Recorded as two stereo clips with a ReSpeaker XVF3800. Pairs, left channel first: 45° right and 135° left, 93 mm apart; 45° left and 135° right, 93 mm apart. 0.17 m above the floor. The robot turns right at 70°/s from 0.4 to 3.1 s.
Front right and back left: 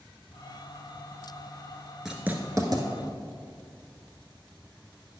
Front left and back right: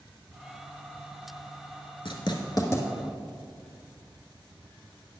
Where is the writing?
50° left, 1.0 m; by 2.8 s 105° left, 1.0 m.